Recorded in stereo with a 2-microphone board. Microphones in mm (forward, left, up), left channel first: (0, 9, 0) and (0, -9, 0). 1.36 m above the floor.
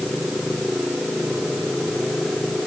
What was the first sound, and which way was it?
Only background noise.